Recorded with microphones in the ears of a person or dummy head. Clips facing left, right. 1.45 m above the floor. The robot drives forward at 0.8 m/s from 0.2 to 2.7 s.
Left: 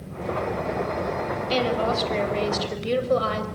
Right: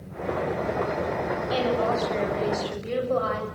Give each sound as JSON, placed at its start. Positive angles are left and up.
{"t": 1.5, "sound": "a woman speaking", "side_deg": 40, "distance_m": 7.5}